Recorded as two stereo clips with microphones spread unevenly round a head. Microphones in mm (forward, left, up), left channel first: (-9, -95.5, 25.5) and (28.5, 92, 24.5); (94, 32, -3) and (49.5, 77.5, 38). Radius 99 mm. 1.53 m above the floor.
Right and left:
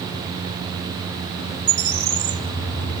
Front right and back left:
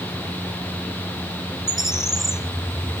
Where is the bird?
115° left, 1.6 m.